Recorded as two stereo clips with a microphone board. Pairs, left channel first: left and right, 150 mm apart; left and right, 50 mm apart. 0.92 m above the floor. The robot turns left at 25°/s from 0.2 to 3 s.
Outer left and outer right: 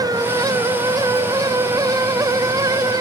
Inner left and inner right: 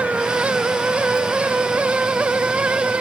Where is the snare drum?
No snare drum in this recording.